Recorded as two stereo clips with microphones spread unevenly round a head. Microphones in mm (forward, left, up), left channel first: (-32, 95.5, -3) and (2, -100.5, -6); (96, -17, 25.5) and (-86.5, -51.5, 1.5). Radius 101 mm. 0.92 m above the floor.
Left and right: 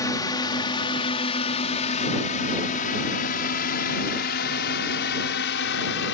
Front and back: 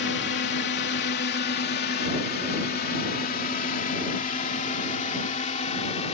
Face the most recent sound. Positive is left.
turn(degrees=70)